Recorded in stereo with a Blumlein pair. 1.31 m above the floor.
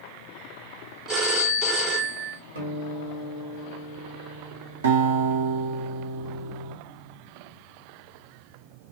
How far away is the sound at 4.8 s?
About 0.9 m.